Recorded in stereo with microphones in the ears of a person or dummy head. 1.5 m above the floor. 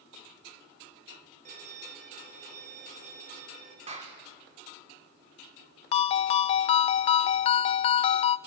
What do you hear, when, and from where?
1.4 s a violin: 45° right (ahead or behind), 5 m
3.9 s a clap: 40° right (ahead or behind), 4 m
5.9 s a ringtone: 35° left (ahead or behind), 0.6 m